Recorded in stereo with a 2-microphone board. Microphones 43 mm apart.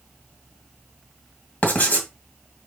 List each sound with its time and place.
1.6 s writing: 35° left (ahead or behind), 2.0 m